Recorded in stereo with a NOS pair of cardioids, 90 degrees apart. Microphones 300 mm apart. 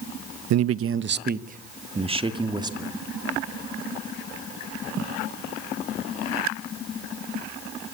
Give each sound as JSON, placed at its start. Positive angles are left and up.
{"t": 0.5, "sound": "a man speaking", "azimuth_deg": -65, "distance_m": 0.7}